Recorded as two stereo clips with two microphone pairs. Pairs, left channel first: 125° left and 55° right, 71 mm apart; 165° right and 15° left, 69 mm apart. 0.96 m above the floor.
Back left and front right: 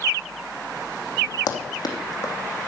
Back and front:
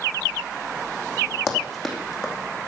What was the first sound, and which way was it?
Running footsteps, 100° left.